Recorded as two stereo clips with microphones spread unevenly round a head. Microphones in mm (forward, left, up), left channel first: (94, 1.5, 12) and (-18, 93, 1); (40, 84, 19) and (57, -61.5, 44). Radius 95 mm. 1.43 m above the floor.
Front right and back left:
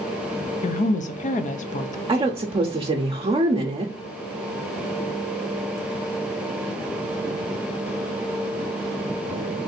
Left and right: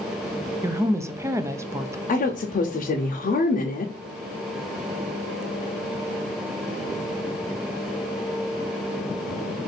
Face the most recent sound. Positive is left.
turn(degrees=90)